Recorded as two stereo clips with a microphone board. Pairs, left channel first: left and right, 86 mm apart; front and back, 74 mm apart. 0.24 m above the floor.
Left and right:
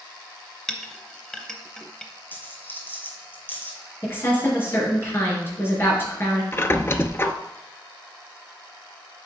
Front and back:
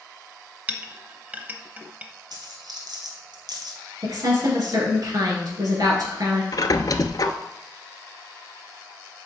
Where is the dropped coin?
155° left, 1.8 m.